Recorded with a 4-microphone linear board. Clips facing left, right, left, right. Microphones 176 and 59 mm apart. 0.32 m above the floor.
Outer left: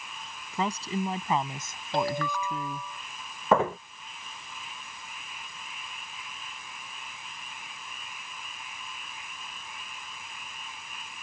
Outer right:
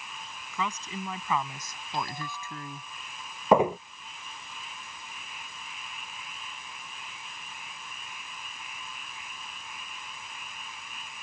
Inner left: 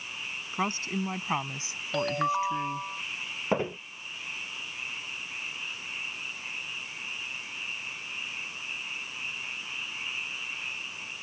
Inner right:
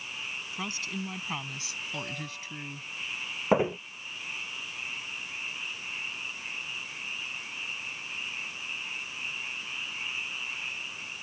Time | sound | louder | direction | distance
0.5 | a woman speaking | outer left 5 dB, inner left 7 dB | 35° left (ahead or behind) | ?
1.9 | a ringtone | outer left 7 dB, inner left 16 dB | 65° left (ahead or behind) | ?
3.5 | footsteps | outer right 3 dB, inner right 4 dB | 15° right (ahead or behind) | ?